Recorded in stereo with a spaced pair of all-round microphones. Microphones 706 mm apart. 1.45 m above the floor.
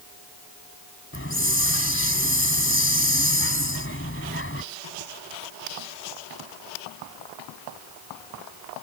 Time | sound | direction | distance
1.1 | a hiss | 15° left (ahead or behind) | ?